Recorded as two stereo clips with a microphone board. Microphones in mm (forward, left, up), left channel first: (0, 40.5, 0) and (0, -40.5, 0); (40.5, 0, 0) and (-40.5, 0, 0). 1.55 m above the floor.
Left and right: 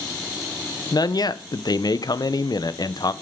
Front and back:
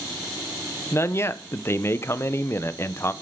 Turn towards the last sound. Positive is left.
turn(degrees=55)